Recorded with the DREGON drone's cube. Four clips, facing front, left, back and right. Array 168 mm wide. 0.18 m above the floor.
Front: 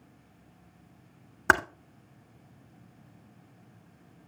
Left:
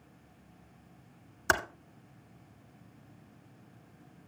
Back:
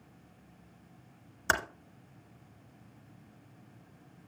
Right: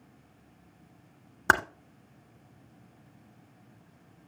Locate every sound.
1.5 s typing on a keyboard: 40° right, 0.9 m